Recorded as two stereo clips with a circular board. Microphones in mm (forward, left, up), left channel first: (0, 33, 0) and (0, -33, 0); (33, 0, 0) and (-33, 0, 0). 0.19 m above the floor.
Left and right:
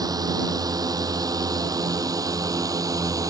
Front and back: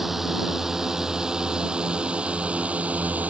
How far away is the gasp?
I don't hear a gasp.